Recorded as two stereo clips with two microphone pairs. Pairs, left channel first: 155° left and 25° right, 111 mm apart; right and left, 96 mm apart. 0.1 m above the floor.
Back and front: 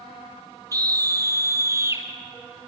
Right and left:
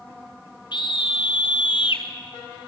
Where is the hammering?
No hammering in this recording.